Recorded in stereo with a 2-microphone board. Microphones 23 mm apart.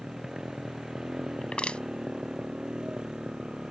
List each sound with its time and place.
0.0 s a motorcycle: 35° right (ahead or behind)
1.4 s crushing: 60° left (ahead or behind)